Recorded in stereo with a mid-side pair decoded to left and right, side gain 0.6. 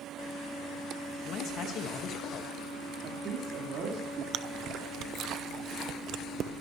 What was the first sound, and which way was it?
A man speaking, 55° left.